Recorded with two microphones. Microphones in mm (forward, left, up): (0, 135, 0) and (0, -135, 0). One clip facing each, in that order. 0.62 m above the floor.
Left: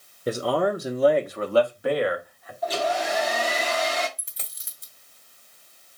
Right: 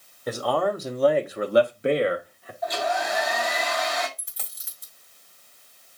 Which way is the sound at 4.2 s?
25° left (ahead or behind).